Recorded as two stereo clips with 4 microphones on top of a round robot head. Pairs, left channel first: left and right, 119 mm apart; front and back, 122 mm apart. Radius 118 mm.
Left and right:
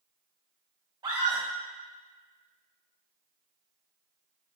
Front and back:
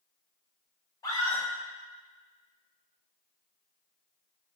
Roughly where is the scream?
Ahead right.